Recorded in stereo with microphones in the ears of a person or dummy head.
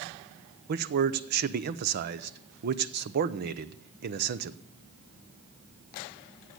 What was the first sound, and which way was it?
A man speaking, 50° right (ahead or behind).